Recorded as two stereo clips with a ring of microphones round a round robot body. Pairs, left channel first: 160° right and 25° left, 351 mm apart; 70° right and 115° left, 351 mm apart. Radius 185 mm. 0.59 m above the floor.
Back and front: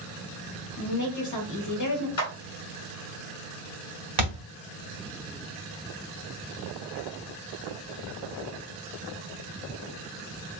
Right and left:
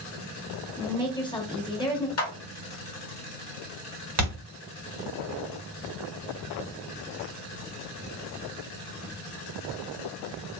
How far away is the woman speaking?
About 1.0 m.